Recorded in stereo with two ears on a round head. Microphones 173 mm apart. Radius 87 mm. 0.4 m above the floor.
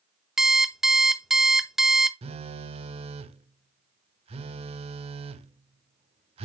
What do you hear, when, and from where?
0.4 s an alarm clock: centre (ahead or behind), 0.6 m
2.2 s a phone buzzing: 30° right (ahead or behind), 0.5 m